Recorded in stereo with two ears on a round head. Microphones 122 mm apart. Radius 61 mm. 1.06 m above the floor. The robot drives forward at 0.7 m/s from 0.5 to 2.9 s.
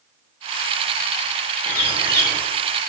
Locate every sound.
1.6 s a bird: 15° left (ahead or behind), 3.5 m; by 2.4 s 20° left (ahead or behind), 3 m